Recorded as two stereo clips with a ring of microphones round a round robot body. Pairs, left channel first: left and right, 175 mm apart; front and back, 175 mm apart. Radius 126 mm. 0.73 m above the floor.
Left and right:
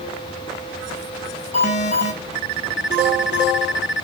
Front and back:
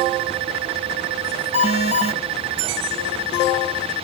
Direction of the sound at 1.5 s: 125° left.